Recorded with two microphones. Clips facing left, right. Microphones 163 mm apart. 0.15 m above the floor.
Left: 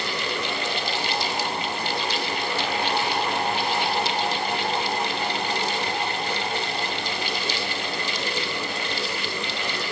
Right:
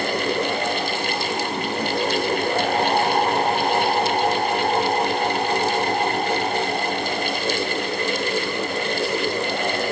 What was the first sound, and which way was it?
Only background noise.